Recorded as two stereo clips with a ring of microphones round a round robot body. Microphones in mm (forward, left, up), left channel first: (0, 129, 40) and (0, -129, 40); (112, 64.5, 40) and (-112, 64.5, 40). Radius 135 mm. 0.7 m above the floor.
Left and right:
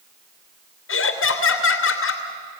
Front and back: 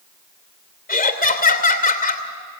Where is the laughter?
50° left, 3 m.